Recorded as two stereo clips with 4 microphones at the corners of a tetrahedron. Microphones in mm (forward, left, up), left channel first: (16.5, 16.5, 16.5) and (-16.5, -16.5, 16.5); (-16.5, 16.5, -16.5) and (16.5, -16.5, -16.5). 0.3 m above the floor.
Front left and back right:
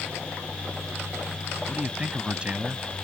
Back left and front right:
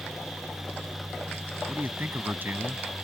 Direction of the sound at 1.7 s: 75° right.